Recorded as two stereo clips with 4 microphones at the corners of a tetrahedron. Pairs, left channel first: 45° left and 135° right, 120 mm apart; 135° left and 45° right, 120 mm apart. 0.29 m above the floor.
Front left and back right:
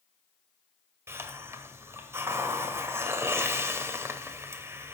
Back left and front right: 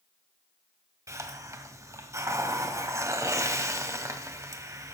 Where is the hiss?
85° right, 1.4 m.